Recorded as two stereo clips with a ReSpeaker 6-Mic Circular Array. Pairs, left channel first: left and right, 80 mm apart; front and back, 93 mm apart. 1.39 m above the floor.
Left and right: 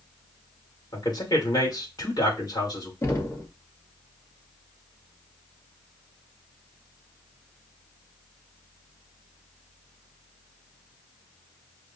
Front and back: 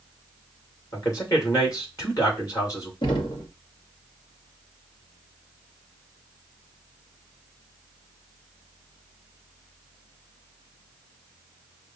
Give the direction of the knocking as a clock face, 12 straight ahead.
11 o'clock.